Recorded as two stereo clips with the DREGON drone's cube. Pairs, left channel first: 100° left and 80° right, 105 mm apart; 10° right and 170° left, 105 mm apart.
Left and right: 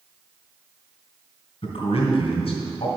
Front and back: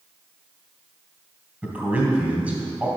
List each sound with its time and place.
1.6 s a man speaking: 95° left, 2 m